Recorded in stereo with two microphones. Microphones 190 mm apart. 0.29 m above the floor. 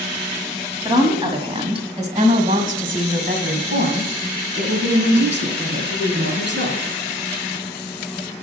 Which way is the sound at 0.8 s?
15° right (ahead or behind).